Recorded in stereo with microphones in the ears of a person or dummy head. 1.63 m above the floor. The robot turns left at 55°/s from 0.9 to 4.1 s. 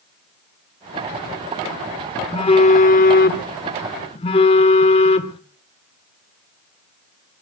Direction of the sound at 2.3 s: 145° left.